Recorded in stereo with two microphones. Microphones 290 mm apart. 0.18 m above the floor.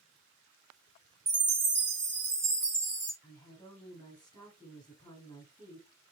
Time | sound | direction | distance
1.3 | a chime | 55° right (ahead or behind) | 1.9 m
3.2 | a woman speaking | 15° left (ahead or behind) | 2.5 m